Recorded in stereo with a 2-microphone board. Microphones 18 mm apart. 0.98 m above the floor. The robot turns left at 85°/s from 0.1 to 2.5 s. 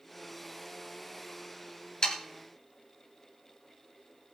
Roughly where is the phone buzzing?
I don't hear a phone buzzing.